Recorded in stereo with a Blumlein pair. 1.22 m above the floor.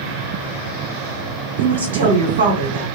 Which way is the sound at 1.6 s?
60° right.